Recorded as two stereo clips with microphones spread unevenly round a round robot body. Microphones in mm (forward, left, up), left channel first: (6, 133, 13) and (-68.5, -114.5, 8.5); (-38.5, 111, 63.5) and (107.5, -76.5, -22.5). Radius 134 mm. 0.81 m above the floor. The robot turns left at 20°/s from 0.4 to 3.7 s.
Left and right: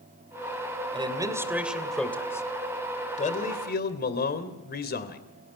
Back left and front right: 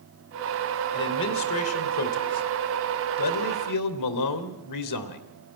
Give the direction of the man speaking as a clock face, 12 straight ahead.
6 o'clock.